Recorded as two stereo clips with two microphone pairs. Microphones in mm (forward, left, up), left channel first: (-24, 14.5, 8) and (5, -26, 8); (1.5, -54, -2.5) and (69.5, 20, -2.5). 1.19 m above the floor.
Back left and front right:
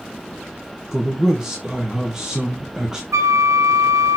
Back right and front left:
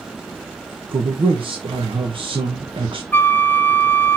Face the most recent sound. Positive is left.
turn(degrees=-65)